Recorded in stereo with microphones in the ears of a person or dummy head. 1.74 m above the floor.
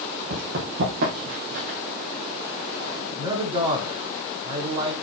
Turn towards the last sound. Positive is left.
turn(degrees=-20)  # may be behind; listen again after turning